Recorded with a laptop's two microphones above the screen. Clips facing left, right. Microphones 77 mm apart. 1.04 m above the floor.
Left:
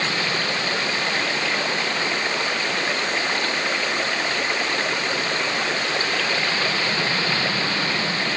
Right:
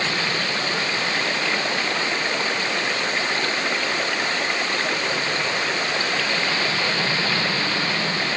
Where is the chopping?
I don't hear chopping.